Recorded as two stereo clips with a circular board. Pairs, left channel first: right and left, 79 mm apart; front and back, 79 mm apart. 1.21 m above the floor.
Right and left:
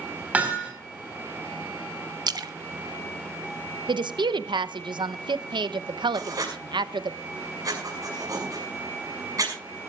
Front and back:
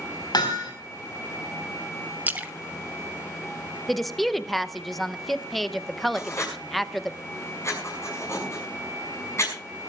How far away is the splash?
About 1.0 m.